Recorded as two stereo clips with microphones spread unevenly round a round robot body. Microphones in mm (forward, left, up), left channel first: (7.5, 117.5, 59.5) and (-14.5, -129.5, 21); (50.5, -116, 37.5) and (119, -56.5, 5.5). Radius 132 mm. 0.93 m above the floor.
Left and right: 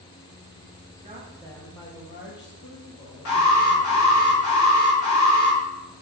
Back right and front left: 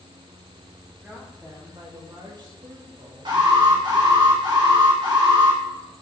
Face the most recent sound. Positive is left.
turn(degrees=55)